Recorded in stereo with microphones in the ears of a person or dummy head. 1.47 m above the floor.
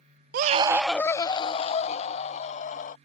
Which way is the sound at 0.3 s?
50° right (ahead or behind).